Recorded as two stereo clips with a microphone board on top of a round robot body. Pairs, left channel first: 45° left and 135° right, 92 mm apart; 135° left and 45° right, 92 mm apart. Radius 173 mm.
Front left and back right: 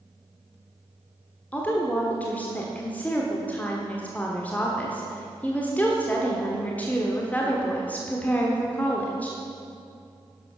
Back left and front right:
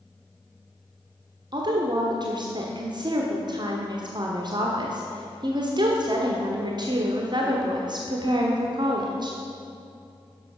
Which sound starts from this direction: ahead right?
A woman speaking, at 1.5 s.